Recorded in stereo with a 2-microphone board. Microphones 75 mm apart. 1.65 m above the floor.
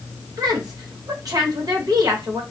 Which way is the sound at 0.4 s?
50° right (ahead or behind).